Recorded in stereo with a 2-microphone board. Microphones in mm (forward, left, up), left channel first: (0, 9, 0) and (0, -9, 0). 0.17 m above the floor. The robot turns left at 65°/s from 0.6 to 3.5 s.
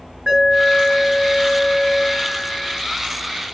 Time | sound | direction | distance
0.3 | an alarm | 120° right | 3 m